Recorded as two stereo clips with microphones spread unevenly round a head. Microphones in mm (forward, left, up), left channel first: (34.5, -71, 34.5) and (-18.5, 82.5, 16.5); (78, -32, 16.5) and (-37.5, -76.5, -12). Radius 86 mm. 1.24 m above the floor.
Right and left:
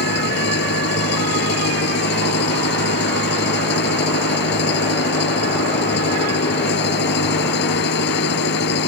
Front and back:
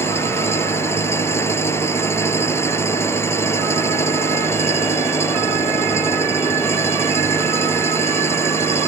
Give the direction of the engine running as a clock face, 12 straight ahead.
2 o'clock.